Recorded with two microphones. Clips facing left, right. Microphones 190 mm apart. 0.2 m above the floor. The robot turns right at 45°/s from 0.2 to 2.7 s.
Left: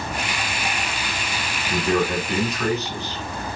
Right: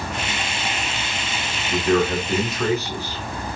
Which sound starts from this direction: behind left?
A man speaking, at 1.7 s.